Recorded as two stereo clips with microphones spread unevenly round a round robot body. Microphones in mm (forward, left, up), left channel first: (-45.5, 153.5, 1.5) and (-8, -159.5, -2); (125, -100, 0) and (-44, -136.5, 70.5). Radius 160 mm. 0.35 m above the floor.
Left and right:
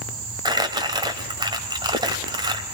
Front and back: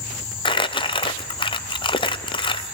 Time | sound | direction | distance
0.5 | crumpling | 10° right | 1.6 m